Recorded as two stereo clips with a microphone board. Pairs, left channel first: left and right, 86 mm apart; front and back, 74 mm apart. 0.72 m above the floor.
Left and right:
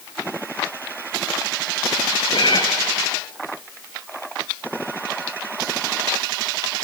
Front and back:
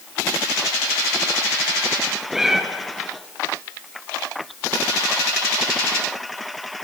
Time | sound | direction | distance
2.3 | a cat meowing | 95° left | 2.0 m